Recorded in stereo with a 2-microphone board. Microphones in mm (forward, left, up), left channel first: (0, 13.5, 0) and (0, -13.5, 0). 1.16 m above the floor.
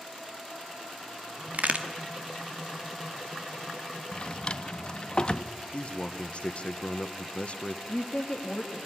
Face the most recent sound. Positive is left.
turn(degrees=35)  # may be behind; listen again after turning